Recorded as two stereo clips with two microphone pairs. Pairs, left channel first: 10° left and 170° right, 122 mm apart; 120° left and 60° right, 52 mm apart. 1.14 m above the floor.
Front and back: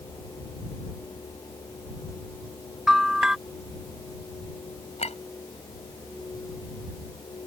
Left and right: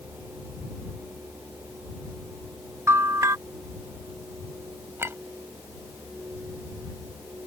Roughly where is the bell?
Right.